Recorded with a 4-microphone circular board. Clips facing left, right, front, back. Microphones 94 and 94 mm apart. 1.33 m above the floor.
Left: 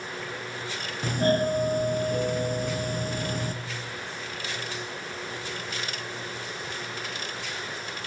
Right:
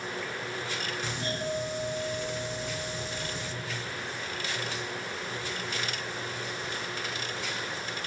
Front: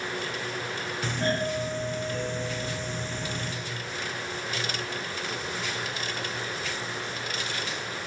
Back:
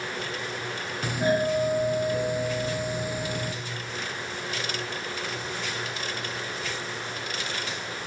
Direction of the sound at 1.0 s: 105° left.